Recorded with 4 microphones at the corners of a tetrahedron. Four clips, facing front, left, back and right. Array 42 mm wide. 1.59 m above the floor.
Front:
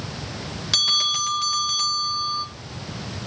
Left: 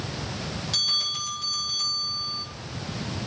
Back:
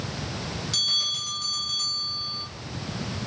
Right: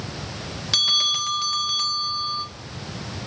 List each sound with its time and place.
0.7 s a bell: 40° right, 1.8 m